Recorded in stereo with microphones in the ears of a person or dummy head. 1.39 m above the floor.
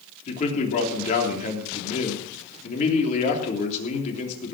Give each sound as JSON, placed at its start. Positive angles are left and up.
{"t": 0.3, "sound": "a man speaking", "side_deg": 40, "distance_m": 3.5}